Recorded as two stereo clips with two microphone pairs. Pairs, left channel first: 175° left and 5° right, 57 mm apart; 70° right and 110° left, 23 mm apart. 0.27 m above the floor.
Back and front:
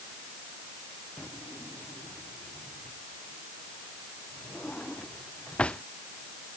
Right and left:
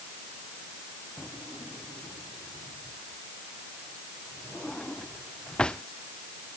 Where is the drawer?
115° right.